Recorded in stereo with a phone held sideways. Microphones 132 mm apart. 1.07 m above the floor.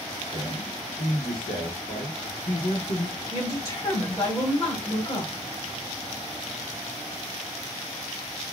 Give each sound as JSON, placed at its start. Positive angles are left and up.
{"t": 0.3, "sound": "a man speaking", "side_deg": 50, "distance_m": 1.8}
{"t": 3.3, "sound": "a woman speaking", "side_deg": 25, "distance_m": 2.0}